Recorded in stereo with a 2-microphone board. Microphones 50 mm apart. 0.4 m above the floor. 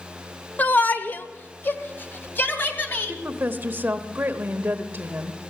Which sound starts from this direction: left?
A shout, at 0.6 s.